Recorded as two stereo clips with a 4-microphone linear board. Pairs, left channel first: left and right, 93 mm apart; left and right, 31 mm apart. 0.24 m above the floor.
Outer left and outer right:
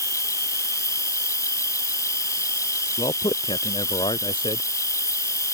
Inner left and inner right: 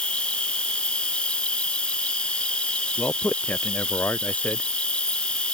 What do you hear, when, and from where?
0.0 s an insect: 35° left (ahead or behind)
3.0 s a man speaking: 65° left (ahead or behind)